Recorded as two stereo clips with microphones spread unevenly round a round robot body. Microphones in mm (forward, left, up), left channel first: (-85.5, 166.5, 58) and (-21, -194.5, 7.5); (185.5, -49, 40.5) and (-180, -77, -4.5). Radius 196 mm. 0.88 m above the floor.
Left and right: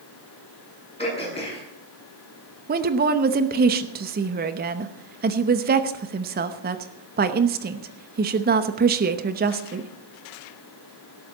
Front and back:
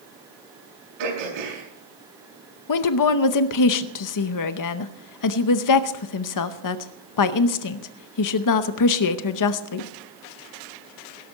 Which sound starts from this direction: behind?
Throat clearing, at 1.0 s.